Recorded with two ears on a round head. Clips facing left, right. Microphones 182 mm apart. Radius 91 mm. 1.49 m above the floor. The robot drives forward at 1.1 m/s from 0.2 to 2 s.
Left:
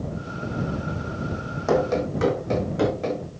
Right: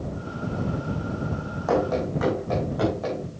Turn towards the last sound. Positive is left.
turn(degrees=30)  # may be behind; listen again after turning